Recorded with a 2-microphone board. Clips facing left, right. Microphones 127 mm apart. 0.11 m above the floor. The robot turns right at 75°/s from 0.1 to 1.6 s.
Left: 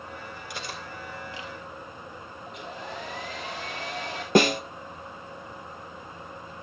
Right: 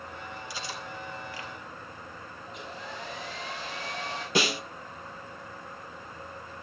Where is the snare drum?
55° left (ahead or behind), 0.7 m.